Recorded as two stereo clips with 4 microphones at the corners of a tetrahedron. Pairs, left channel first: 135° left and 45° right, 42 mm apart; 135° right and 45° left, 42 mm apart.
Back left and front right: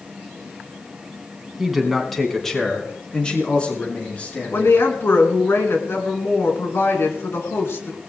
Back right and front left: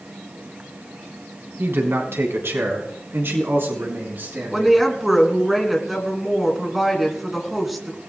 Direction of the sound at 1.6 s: 40° left.